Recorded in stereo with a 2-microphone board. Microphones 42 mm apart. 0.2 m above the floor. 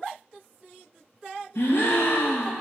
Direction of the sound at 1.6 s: 85° left.